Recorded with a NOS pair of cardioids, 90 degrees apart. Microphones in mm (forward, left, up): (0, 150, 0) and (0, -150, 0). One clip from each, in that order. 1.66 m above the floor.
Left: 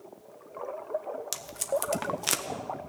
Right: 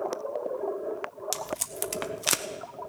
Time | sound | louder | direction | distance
1.3 | tape being pulled | left 6 dB | 10° right | 0.9 m